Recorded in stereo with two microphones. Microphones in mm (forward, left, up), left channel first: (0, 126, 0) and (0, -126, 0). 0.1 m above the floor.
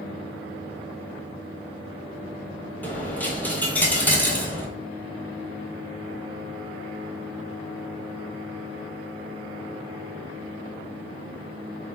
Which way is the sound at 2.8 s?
5° left (ahead or behind).